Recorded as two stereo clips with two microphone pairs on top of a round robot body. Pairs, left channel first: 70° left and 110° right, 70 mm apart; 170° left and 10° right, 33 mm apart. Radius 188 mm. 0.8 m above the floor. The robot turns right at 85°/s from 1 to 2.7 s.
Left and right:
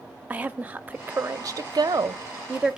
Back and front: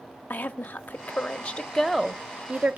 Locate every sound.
0.3 s a woman speaking: straight behind, 0.8 m; by 2.8 s 35° right, 0.8 m